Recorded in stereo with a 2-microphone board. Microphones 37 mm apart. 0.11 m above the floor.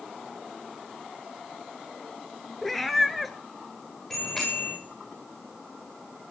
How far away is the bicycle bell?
About 9 m.